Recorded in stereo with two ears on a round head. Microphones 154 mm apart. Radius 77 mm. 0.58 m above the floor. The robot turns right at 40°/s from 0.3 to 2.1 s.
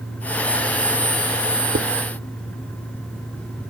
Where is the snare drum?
No snare drum in this recording.